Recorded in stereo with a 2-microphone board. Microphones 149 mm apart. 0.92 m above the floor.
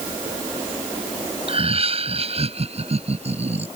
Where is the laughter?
45° right (ahead or behind); by 3.7 s 50° right (ahead or behind).